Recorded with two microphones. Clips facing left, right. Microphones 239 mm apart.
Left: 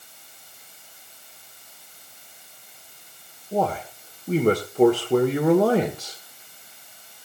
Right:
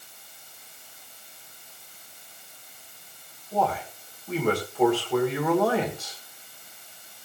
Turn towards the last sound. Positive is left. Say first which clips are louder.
# left 3 dB
turn(degrees=45)  # may be behind; listen again after turning